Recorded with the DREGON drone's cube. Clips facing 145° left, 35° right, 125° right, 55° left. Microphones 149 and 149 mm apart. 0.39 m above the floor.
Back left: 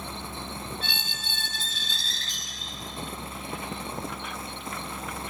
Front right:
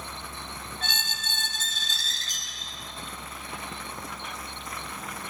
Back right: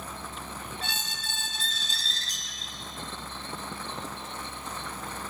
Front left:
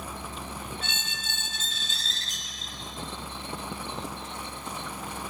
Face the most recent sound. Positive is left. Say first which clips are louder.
# front right 1 dB, back right 1 dB
turn(degrees=-75)